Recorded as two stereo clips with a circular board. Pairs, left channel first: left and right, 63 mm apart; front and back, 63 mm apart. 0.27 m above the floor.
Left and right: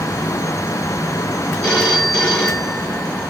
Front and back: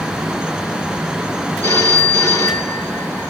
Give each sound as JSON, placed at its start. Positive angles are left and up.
{"t": 1.6, "sound": "a phone ringing", "azimuth_deg": 15, "distance_m": 2.5}